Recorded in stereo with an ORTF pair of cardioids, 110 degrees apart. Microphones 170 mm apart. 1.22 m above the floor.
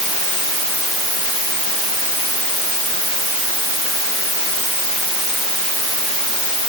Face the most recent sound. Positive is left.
No sound to turn to.